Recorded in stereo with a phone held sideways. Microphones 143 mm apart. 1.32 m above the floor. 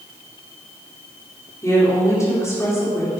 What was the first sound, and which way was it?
A woman speaking, 20° left (ahead or behind).